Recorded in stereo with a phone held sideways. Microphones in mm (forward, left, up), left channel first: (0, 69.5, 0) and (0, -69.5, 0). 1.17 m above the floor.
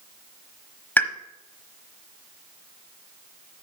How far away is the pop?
About 1.0 m.